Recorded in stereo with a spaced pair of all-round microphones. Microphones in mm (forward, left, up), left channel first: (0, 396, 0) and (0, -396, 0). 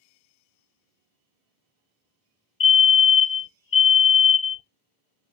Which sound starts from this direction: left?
A fire alarm, at 2.6 s.